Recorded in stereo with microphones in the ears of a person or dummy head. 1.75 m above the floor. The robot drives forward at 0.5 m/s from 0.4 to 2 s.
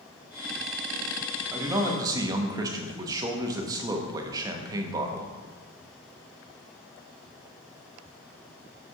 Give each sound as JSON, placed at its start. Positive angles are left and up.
{"t": 1.5, "sound": "a man speaking", "side_deg": -15, "distance_m": 0.9}